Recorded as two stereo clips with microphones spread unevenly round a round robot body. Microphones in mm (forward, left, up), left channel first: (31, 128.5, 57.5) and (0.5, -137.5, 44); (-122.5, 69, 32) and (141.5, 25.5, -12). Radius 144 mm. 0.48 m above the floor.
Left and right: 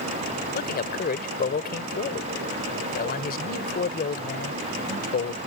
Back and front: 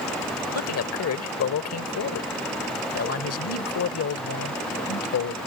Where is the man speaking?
140° left.